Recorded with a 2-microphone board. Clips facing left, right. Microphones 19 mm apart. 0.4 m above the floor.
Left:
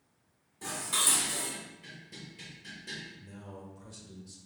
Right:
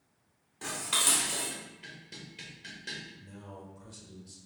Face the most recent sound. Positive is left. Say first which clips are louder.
# even
turn(degrees=-5)  # may be behind; listen again after turning